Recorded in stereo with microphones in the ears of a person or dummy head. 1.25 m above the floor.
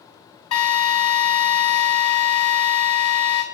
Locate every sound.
0.5 s a drill: 30° left (ahead or behind), 2.0 m